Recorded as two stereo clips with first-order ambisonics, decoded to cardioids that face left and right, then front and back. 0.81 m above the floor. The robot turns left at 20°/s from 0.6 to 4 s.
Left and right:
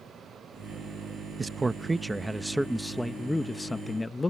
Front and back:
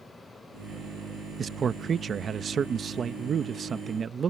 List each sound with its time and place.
1.4 s a man speaking: 155° right; by 4.3 s 155° left